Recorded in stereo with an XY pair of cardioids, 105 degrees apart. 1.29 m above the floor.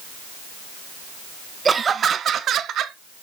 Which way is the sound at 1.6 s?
30° right.